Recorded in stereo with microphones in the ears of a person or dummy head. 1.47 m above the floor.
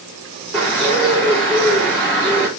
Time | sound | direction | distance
0.5 | a bird | 5° left (ahead or behind) | 4.5 m